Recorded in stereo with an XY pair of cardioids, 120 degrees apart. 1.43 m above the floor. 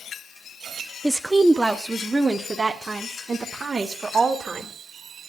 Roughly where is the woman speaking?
Ahead.